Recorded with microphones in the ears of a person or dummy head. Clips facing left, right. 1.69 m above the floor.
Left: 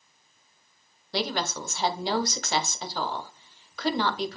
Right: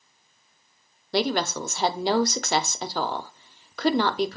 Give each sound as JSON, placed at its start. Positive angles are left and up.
{"t": 1.1, "sound": "a woman speaking", "side_deg": -45, "distance_m": 0.5}